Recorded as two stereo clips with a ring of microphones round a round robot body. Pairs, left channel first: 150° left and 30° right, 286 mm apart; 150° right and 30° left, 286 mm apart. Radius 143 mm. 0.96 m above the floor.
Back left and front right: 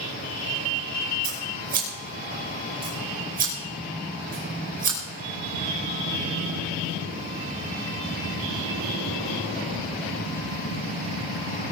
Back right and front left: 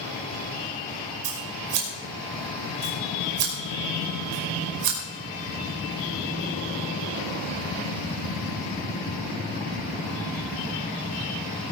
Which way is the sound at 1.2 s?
30° left.